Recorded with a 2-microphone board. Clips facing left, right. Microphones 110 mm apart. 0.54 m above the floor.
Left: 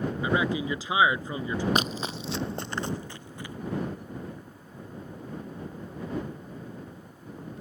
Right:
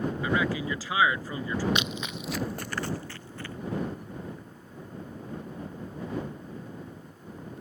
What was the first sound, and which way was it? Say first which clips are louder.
A man speaking: left 2 dB; 20° left (ahead or behind).